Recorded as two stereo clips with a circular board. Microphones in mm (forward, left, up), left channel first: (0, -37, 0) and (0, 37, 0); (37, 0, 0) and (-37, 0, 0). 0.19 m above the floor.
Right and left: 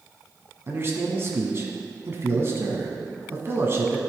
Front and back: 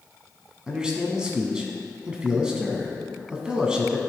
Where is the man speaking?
110° left, 1.3 m.